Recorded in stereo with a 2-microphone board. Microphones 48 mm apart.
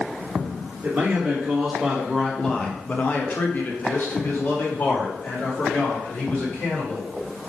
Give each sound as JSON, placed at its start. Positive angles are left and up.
{"t": 0.8, "sound": "a man speaking", "side_deg": -20, "distance_m": 1.3}